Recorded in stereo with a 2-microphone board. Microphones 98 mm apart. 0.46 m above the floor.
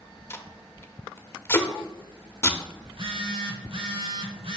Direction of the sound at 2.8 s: 60° right (ahead or behind).